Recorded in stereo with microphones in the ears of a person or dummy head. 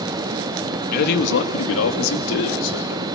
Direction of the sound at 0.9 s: 50° left (ahead or behind).